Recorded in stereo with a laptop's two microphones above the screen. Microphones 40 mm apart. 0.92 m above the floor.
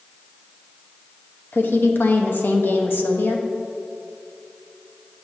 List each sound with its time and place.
1.5 s a woman speaking: 65° left (ahead or behind), 0.8 m